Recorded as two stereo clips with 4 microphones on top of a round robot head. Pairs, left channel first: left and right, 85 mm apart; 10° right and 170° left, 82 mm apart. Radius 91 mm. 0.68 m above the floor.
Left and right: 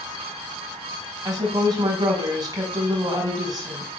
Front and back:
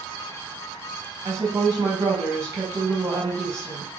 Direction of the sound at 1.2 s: 135° right.